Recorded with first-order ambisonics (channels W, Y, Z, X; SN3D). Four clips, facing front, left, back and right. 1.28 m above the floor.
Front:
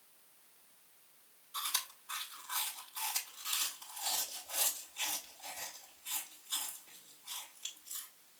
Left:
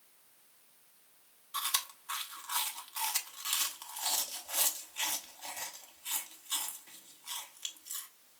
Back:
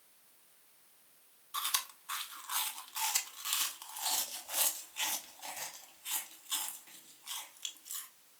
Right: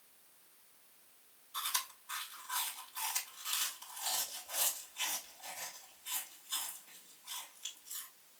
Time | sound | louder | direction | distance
1.5 | chewing | left 3 dB, back 2 dB | 130° left | 0.9 m